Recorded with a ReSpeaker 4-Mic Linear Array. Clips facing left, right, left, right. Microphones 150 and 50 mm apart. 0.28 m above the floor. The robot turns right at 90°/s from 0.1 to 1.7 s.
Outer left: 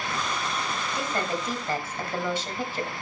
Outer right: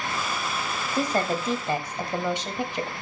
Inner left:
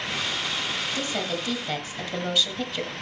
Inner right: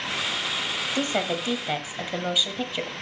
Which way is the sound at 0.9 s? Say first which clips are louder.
Outer right 6 dB, inner right 3 dB; 100° right.